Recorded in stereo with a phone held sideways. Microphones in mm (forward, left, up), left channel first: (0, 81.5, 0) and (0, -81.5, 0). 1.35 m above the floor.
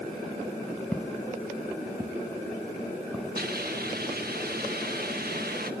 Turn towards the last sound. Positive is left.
turn(degrees=-70)  # may be behind; listen again after turning